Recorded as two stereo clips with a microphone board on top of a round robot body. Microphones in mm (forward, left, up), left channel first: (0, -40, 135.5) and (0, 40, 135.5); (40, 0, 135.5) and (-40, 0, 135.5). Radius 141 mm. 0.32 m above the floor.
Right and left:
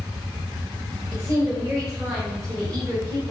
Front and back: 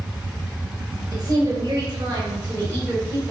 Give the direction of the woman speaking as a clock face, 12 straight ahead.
7 o'clock.